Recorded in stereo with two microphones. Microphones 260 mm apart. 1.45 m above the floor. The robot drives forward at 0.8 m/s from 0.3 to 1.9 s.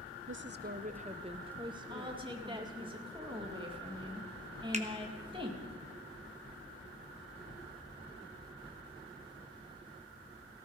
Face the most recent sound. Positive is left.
turn(degrees=-25)  # may be behind; listen again after turning